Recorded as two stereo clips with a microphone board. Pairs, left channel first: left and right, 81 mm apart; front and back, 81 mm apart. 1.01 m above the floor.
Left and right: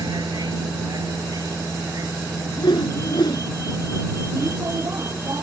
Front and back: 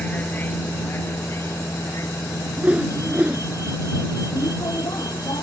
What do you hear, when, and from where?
0.0 s a vehicle: 70° right; by 5.4 s 35° right
2.6 s a whoosh: 105° left